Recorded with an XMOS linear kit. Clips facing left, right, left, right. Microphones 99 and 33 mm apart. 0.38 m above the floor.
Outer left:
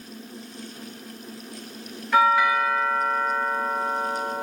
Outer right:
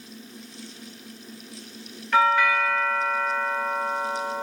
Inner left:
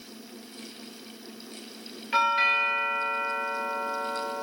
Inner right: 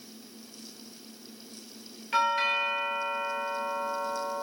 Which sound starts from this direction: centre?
A doorbell, at 2.1 s.